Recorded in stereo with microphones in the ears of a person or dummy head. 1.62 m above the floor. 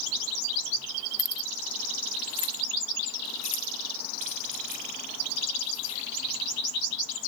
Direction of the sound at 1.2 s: 20° left (ahead or behind).